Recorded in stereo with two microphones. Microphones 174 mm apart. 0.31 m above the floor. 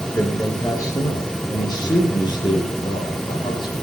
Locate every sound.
0.1 s a man speaking: 15° left (ahead or behind), 3.5 m; by 3.7 s 25° left (ahead or behind), 8.5 m